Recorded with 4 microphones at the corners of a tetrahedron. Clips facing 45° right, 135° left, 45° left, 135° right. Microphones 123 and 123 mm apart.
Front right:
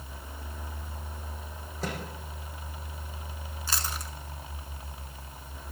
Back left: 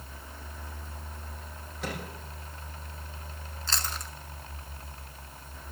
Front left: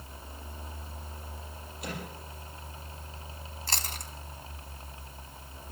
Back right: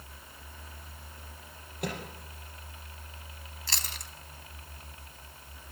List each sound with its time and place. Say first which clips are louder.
1.8 s a microwave: front right 1 dB, back right 3 dB; 100° right, 5.5 m
3.7 s chewing: even, front left 4 dB; 30° left, 1.1 m